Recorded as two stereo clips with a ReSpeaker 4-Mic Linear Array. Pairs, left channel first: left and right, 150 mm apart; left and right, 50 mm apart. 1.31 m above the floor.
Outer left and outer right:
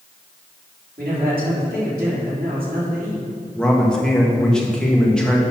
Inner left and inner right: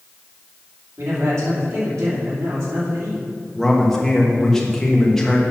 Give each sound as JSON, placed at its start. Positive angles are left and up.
{"t": 1.0, "sound": "a man speaking", "side_deg": -80, "distance_m": 3.0}
{"t": 3.5, "sound": "a man speaking", "side_deg": 5, "distance_m": 1.6}